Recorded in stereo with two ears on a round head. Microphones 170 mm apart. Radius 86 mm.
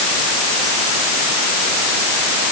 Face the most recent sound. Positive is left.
No sound to turn to.